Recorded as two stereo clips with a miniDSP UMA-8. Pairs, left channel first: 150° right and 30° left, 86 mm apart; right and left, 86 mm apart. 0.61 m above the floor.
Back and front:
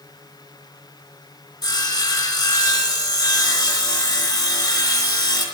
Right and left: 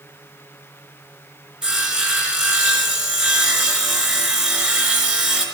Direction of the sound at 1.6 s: 165° left.